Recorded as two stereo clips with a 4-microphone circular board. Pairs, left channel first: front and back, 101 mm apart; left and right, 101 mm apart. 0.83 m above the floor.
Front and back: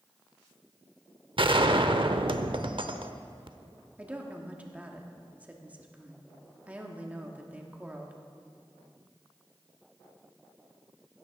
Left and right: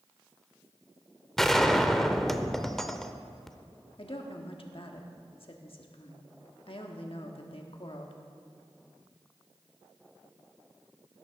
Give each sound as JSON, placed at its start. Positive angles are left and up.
{"t": 1.4, "sound": "a gunshot", "azimuth_deg": 175, "distance_m": 0.7}
{"t": 4.0, "sound": "a woman speaking", "azimuth_deg": 105, "distance_m": 1.4}